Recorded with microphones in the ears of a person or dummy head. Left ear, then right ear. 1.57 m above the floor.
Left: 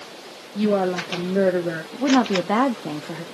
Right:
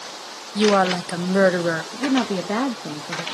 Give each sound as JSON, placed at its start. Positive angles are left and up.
{"t": 0.6, "sound": "a woman speaking", "side_deg": -60, "distance_m": 1.0}
{"t": 1.9, "sound": "a woman speaking", "side_deg": 20, "distance_m": 0.6}